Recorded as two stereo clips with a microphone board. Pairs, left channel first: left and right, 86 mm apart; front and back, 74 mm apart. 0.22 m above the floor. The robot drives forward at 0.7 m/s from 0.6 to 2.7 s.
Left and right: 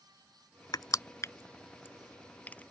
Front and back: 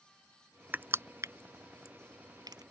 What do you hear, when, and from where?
0.7 s crushing: 120° left; by 2.6 s 160° left